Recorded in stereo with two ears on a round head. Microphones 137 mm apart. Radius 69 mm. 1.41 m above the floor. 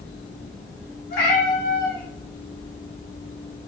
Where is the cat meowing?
65° left (ahead or behind), 1.4 m.